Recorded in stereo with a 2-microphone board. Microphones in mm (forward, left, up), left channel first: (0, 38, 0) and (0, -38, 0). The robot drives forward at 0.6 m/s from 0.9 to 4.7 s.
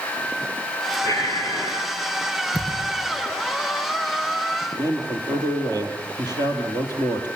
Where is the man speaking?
60° right (ahead or behind), 4 m.